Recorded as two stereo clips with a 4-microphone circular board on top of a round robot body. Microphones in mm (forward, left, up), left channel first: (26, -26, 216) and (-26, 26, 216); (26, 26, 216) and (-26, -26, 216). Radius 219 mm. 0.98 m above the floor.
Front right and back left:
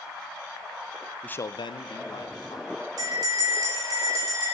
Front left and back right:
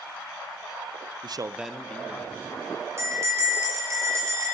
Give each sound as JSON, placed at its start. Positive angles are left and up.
{"t": 1.2, "sound": "a man speaking", "azimuth_deg": -125, "distance_m": 0.6}
{"t": 3.0, "sound": "a bell", "azimuth_deg": 175, "distance_m": 6.0}